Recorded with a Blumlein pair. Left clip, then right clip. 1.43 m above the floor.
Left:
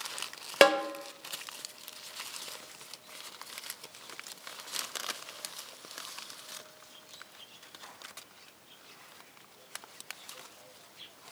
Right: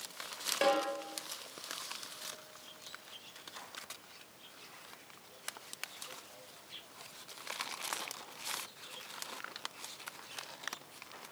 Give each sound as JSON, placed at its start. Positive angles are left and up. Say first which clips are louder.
{"t": 0.6, "sound": "a snare drum", "louder": "left 8 dB", "azimuth_deg": 40, "distance_m": 0.9}